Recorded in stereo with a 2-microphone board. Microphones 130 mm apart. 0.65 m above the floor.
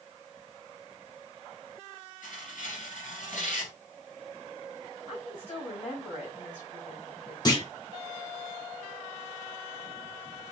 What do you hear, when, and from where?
2.2 s tearing paper: 75° left (ahead or behind), 2.5 m
5.1 s a woman speaking: 50° left (ahead or behind), 4.5 m
7.5 s a clunk: 30° left (ahead or behind), 1.6 m